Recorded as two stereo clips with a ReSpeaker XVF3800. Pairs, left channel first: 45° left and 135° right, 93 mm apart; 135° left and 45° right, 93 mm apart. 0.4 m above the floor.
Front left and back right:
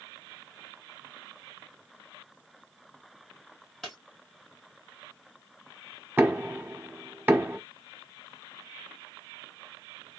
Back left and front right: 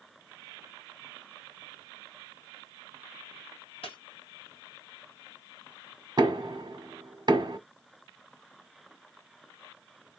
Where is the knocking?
70° right, 0.8 m.